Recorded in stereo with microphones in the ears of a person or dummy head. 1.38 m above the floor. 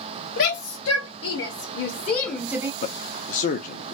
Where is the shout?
80° left, 1.6 m; by 2.7 s 15° right (ahead or behind), 0.6 m.